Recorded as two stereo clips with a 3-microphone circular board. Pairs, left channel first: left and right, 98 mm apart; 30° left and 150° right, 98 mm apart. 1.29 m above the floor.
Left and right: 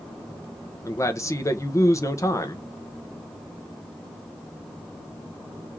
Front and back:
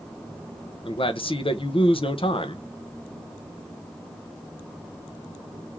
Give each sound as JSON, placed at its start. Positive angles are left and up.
{"t": 0.8, "sound": "a man speaking", "azimuth_deg": 35, "distance_m": 0.9}